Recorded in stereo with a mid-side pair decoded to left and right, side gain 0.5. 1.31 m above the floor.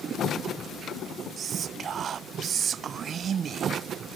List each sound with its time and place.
1.4 s whispering: 50° right